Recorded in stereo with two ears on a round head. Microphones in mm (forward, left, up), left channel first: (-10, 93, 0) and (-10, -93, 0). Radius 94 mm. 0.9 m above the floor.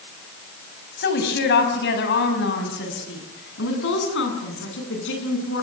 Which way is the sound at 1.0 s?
55° left (ahead or behind).